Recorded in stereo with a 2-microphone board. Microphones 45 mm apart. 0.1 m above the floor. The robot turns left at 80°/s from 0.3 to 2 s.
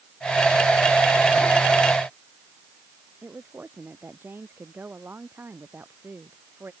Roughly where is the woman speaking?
Right.